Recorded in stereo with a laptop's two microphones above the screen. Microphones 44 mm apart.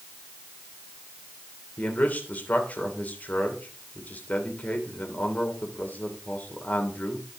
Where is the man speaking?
40° left (ahead or behind), 3 m.